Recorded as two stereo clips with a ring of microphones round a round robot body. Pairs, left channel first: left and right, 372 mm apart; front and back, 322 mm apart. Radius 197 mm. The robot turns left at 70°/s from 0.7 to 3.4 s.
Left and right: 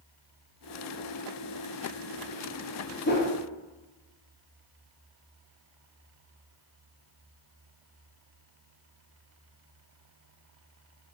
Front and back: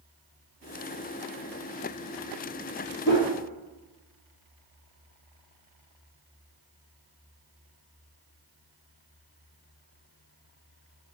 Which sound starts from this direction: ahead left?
A whoosh, at 3.1 s.